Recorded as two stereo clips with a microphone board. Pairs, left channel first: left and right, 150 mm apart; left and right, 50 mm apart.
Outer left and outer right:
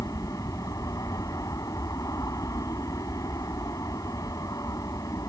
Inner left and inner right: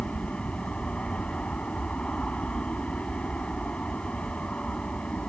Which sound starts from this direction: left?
An aircraft, at 0.0 s.